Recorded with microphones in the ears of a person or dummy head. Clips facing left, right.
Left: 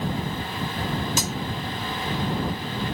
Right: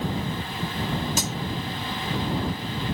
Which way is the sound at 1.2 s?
65° left (ahead or behind).